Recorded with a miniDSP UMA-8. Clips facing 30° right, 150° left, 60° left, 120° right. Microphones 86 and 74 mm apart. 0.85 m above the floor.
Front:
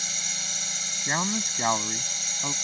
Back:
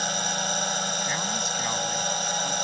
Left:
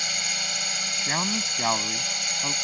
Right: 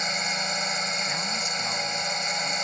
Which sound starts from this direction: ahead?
A man speaking, at 1.1 s.